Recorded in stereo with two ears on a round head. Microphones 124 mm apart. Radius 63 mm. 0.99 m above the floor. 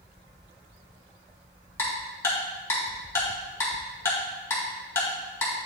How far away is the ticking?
About 2 m.